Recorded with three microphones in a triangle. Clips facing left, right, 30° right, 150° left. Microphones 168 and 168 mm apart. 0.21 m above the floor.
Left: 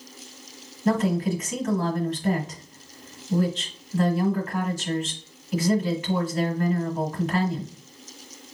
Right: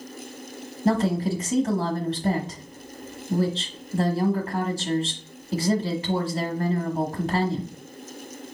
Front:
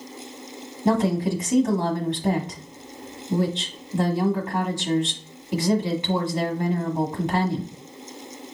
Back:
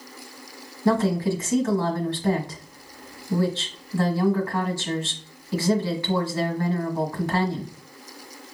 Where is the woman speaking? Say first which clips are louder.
Even, even; 85° right, 1.3 m.